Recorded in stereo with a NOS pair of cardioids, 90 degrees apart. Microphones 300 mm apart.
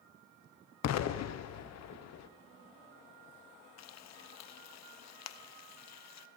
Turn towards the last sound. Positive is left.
turn(degrees=60)